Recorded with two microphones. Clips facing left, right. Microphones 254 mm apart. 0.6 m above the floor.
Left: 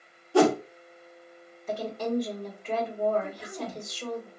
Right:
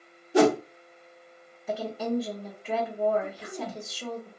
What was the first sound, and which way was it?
A whoosh, 20° right (ahead or behind).